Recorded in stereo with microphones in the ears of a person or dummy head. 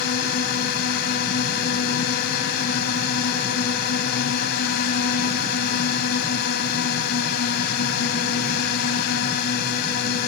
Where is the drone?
45° left (ahead or behind).